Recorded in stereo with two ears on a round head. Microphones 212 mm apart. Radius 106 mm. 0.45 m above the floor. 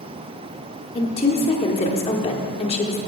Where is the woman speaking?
25° left (ahead or behind), 1.0 m.